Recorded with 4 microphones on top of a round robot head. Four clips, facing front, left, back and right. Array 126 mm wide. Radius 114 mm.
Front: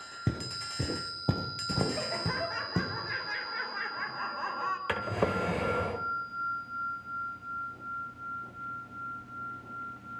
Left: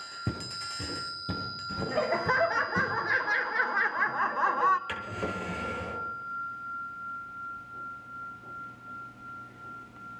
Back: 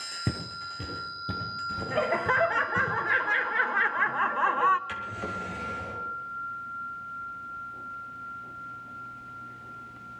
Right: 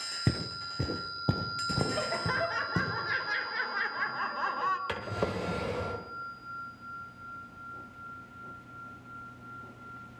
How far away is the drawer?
About 1.0 m.